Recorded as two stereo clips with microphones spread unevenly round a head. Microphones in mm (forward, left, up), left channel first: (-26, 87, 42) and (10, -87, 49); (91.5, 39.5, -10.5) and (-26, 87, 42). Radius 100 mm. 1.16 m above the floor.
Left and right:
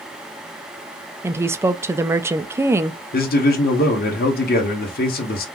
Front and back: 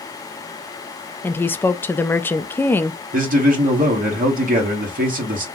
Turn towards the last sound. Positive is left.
turn(degrees=135)